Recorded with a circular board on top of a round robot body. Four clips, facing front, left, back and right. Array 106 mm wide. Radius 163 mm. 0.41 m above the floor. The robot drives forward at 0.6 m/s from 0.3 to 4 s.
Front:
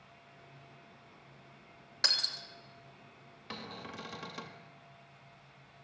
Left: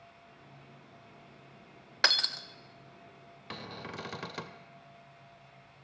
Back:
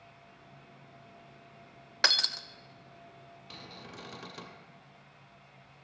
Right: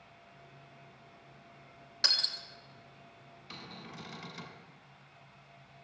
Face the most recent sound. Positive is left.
turn(degrees=85)